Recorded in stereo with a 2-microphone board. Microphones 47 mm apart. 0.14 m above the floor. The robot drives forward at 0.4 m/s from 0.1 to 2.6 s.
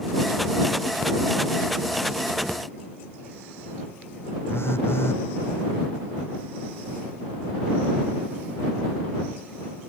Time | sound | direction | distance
4.5 | a phone buzzing | 60° left (ahead or behind) | ?